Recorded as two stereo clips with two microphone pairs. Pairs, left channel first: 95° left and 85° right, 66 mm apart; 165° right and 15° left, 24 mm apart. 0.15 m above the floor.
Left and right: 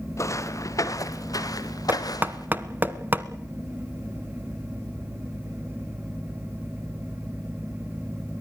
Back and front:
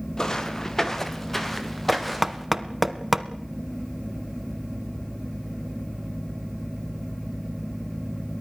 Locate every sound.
0.2 s footsteps: 135° left, 2.5 m; by 2.5 s 110° left, 3 m
1.9 s knocking: 65° right, 1.0 m